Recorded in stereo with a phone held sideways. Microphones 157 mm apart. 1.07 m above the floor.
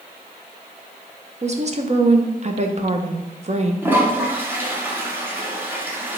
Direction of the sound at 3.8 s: 15° right (ahead or behind).